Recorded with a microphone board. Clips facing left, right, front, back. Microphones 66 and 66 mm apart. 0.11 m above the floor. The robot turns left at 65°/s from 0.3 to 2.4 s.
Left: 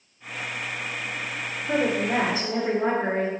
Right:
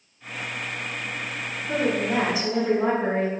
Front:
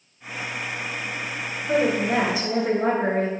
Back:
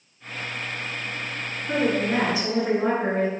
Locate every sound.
1.7 s a woman speaking: 100° left, 1.5 m; by 3.3 s 50° left, 1.5 m